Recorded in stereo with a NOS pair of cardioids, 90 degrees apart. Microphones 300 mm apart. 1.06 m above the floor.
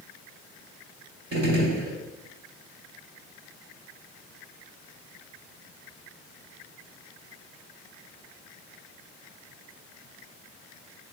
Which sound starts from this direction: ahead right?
A gunshot, at 1.3 s.